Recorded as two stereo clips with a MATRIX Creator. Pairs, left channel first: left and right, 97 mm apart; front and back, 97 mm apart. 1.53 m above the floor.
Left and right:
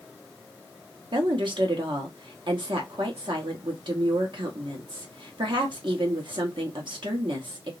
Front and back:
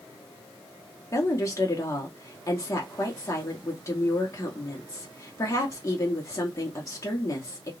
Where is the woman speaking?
55° right, 1.1 m.